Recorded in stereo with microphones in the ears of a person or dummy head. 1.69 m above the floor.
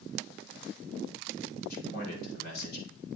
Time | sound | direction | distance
1.7 | a man speaking | 60° left (ahead or behind) | 4.5 m